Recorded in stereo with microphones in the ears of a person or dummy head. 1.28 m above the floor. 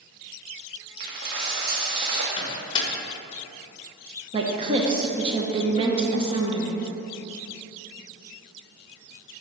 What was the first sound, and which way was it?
A dropped coin, 55° right (ahead or behind).